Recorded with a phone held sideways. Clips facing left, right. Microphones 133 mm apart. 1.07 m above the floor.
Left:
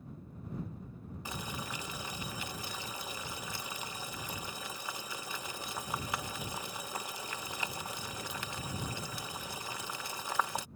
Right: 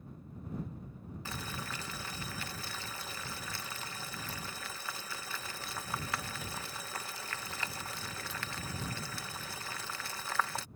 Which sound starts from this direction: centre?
Boiling, at 1.2 s.